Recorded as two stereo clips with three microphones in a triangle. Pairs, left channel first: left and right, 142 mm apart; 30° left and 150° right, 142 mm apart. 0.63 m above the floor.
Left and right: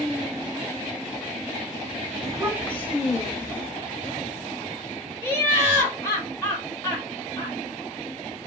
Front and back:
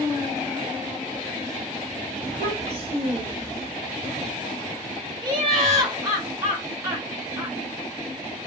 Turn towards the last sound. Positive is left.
turn(degrees=155)